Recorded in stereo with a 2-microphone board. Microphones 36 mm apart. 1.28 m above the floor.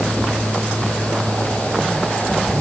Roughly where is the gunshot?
No gunshot in this recording.